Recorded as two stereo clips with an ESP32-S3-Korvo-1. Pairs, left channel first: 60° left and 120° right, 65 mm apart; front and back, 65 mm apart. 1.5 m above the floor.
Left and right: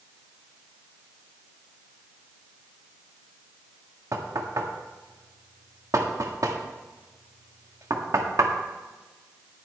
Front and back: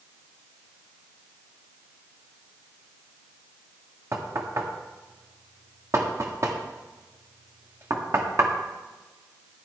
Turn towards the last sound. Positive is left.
turn(degrees=-145)